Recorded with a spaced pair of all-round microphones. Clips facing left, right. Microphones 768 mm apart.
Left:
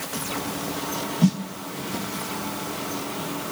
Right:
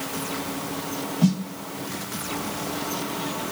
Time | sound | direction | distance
1.2 | a snare drum | 5° left (ahead or behind) | 0.5 m